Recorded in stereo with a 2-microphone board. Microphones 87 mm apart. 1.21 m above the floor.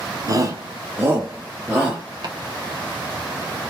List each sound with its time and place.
0.3 s a shout: 40° right (ahead or behind), 0.7 m; by 2.0 s 10° right (ahead or behind), 1.2 m
2.2 s chopping: 55° right (ahead or behind), 0.9 m